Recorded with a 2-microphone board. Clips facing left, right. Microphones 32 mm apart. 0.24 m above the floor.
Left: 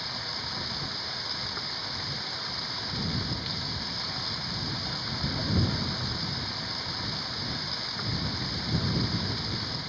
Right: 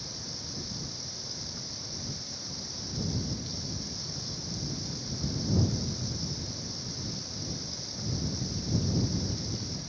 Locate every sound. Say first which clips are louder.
0.0 s running water: left 7 dB; 45° left (ahead or behind)